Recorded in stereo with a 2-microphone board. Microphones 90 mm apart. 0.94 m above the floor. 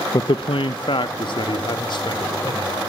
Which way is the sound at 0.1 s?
45° left (ahead or behind).